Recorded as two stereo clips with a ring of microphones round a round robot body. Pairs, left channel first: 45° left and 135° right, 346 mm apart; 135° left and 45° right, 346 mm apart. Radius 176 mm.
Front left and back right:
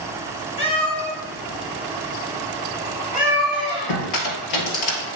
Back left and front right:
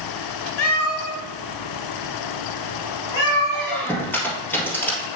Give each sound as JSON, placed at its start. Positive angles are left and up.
{"t": 0.6, "sound": "a cat meowing", "azimuth_deg": 120, "distance_m": 2.5}
{"t": 3.5, "sound": "a squeak", "azimuth_deg": 50, "distance_m": 1.7}